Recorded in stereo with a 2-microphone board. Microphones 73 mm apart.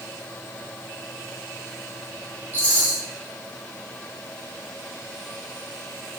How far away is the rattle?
About 9 m.